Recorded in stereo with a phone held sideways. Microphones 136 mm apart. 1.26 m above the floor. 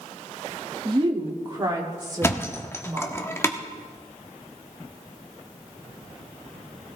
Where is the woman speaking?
40° right (ahead or behind), 1.8 m; by 3.2 s 25° right (ahead or behind), 4.5 m.